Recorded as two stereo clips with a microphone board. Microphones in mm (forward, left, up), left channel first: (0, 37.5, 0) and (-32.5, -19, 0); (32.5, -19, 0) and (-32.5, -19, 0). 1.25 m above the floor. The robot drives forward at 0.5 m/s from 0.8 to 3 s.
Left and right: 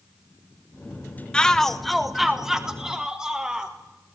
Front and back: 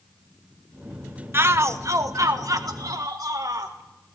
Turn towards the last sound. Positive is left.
turn(degrees=160)